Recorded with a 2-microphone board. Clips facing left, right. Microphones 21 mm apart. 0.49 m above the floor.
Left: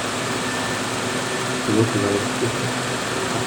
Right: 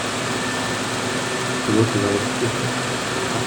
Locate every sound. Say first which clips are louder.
1.7 s a man speaking: right 1 dB; 30° right (ahead or behind), 0.8 m